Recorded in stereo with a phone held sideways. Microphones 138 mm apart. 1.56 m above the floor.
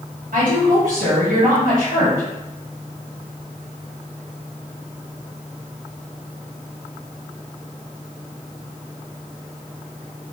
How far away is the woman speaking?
About 1.5 m.